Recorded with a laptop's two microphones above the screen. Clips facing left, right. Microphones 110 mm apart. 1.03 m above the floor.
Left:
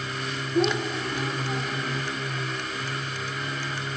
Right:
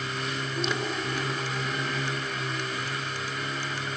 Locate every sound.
0.6 s a child speaking: 70° left (ahead or behind), 1.0 m; by 2.0 s 80° left, 1.9 m